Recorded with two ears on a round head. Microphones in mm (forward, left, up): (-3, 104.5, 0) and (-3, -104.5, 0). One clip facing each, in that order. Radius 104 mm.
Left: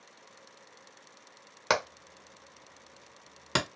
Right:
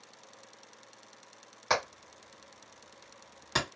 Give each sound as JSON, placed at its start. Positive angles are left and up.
{"t": 1.7, "sound": "hammering", "side_deg": 70, "distance_m": 1.4}